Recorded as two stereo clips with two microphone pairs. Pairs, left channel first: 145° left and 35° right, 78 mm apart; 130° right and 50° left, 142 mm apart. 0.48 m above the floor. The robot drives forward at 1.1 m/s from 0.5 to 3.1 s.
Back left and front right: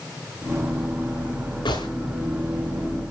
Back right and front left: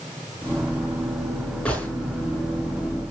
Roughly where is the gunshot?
Behind left.